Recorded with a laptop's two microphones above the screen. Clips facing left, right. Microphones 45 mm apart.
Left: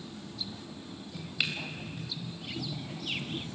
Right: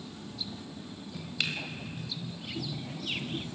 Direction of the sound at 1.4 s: 10° left (ahead or behind).